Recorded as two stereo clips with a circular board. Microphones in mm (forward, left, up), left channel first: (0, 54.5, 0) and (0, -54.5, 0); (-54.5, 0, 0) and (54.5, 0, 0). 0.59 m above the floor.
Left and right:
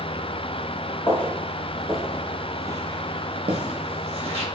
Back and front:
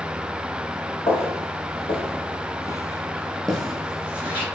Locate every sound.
1.1 s footsteps: 160° left, 1.5 m; by 4.4 s 75° right, 1.6 m